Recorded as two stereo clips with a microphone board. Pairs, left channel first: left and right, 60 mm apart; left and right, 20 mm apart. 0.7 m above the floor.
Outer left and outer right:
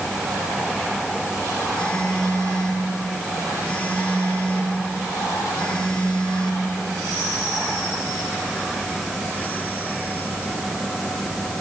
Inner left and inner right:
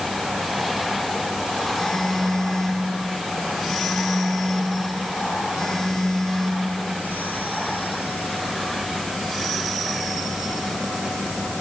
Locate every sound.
1.7 s a phone buzzing: 15° left (ahead or behind), 2.5 m